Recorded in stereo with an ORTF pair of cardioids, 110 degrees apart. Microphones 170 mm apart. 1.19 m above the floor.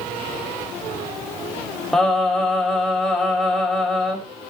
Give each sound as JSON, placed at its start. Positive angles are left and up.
{"t": 1.9, "sound": "singing", "azimuth_deg": 0, "distance_m": 5.0}